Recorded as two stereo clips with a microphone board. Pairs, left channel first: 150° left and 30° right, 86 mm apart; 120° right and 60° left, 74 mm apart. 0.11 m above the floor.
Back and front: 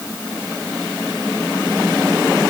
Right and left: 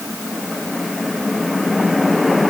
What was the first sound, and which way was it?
Only background noise.